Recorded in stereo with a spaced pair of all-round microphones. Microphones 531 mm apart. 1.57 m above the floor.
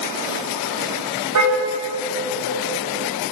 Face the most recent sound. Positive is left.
turn(degrees=-30)  # may be behind; listen again after turning